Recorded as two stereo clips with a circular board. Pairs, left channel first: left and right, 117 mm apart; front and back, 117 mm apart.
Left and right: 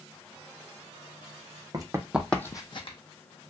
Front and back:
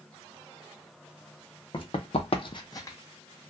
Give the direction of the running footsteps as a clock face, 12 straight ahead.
1 o'clock.